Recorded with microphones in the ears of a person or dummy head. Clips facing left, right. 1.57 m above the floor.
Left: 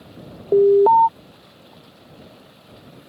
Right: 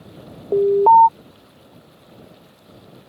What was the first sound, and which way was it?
An alarm, 15° left (ahead or behind).